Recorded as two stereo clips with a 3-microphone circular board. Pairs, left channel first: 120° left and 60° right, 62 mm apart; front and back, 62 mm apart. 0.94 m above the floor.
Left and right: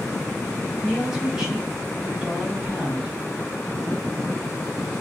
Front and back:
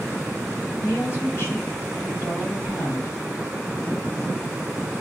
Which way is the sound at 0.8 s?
20° left.